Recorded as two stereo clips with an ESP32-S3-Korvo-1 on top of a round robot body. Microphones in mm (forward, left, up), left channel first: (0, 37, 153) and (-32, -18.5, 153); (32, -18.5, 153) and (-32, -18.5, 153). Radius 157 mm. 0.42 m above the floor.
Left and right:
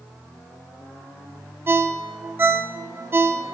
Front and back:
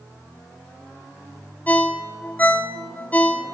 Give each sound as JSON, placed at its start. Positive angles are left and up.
{"t": 1.7, "sound": "a ringtone", "azimuth_deg": -65, "distance_m": 0.7}